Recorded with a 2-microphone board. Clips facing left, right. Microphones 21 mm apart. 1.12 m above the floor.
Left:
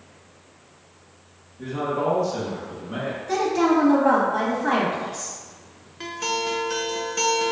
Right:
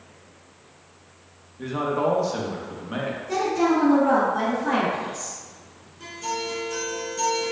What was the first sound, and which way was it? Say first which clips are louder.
A man speaking: right 1 dB; 25° right (ahead or behind).